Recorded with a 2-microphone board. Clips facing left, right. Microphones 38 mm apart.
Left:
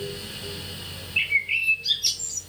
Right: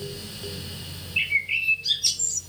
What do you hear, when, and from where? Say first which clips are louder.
1.2 s a bird: left 1 dB; 5° left (ahead or behind), 0.8 m